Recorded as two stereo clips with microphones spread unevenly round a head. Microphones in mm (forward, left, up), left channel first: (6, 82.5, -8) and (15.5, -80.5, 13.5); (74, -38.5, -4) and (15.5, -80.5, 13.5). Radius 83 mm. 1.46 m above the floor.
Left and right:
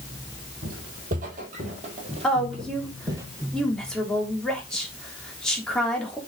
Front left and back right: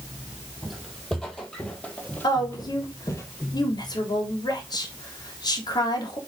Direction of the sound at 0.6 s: 60° right.